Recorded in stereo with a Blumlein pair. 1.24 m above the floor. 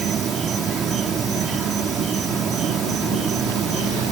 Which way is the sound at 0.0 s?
25° right.